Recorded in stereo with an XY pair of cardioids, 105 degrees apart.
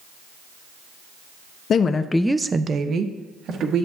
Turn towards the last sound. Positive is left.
turn(degrees=-70)